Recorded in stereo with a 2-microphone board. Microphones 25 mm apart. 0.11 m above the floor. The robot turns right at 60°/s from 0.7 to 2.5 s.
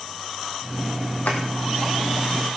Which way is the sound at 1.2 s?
80° left.